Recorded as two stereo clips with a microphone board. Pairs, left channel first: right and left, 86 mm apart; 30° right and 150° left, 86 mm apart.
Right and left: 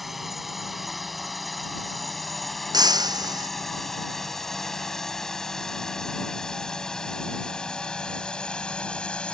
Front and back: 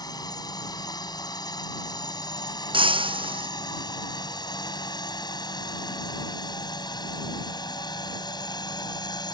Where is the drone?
Straight ahead; by 9.3 s 15° right.